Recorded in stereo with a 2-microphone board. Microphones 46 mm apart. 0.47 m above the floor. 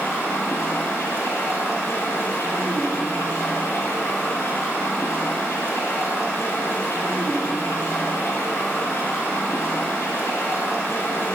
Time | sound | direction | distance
0.0 | running water | 80° left | 2.5 m